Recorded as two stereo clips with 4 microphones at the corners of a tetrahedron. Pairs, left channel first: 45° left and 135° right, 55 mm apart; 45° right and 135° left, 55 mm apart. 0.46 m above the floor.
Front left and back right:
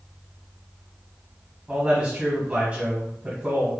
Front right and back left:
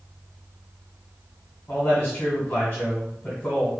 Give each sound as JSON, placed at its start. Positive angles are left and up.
{"t": 1.7, "sound": "a man speaking", "azimuth_deg": -85, "distance_m": 1.5}